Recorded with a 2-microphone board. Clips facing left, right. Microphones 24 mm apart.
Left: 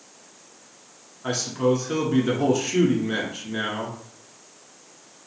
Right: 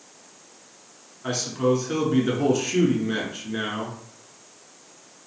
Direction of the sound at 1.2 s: Centre (ahead or behind).